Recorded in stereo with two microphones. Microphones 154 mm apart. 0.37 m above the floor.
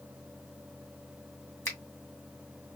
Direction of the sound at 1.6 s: 15° left (ahead or behind).